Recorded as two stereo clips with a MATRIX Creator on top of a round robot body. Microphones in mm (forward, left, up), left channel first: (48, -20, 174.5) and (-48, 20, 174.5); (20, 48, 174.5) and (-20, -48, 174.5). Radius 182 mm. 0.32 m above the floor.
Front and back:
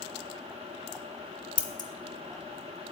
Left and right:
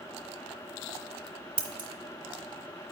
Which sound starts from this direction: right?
Scissors, at 1.6 s.